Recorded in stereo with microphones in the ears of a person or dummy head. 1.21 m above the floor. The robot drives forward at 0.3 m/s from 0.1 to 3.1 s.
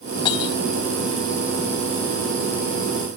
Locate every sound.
0.2 s breaking glass: 30° left (ahead or behind)